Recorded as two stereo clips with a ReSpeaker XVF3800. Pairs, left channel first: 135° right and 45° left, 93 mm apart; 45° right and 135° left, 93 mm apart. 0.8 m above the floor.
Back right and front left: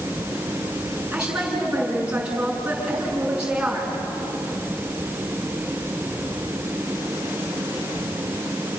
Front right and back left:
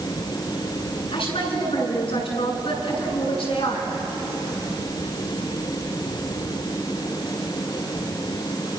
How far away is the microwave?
No microwave in this recording.